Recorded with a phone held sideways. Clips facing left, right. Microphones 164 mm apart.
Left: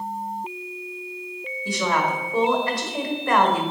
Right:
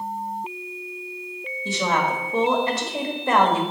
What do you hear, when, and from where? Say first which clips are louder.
1.6 s a woman speaking: even; 25° right (ahead or behind), 1.9 m